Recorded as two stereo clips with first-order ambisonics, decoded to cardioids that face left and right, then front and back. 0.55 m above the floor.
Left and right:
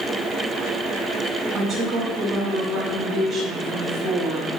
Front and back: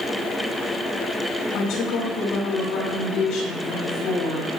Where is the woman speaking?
15° right, 3.5 m.